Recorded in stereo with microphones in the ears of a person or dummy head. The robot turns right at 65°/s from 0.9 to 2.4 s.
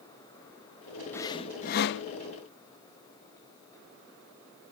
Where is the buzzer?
I don't hear a buzzer.